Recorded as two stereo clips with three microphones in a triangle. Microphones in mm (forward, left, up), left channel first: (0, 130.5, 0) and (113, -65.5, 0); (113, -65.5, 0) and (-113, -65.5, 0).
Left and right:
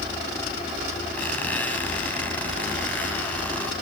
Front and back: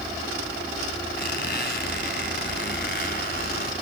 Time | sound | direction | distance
1.1 | a squeak | 35° left | 2 m